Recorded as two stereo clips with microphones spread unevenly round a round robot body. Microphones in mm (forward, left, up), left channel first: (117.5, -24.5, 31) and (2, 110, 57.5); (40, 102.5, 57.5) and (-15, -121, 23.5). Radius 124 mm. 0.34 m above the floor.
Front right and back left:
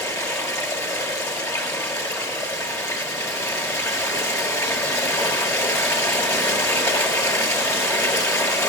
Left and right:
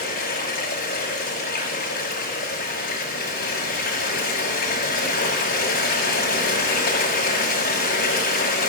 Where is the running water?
25° left, 6 m.